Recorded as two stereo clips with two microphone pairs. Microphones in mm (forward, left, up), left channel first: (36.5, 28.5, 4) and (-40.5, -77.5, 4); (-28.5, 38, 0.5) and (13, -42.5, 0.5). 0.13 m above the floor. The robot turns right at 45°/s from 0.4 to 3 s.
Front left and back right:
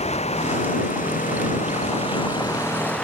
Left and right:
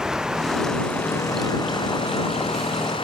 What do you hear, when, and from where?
0.0 s running water: 20° left; by 3.1 s 140° left